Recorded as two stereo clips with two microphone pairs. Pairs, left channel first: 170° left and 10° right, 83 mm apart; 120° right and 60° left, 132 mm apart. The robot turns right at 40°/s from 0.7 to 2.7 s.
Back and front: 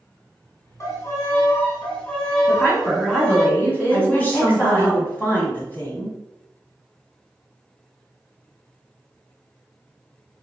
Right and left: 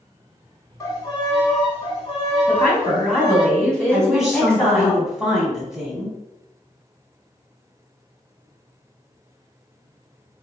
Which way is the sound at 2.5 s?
160° left.